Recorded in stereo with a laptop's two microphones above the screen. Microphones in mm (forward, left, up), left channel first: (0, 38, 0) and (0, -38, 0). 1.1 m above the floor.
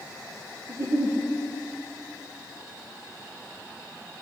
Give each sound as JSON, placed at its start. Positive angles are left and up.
{"t": 0.7, "sound": "a giggle", "side_deg": -40, "distance_m": 0.7}